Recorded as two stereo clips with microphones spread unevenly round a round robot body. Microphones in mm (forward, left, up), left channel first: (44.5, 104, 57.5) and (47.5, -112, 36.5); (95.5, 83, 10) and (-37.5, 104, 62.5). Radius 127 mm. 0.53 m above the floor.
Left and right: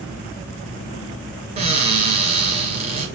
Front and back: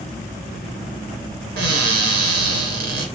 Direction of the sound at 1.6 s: 155° right.